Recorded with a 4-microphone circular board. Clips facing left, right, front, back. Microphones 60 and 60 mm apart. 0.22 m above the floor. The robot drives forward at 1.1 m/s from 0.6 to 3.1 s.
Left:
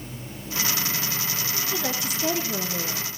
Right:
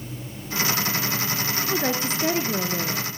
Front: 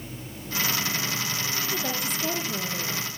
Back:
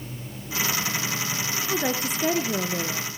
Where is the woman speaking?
140° right, 2 m; by 3.1 s 155° right, 3.5 m.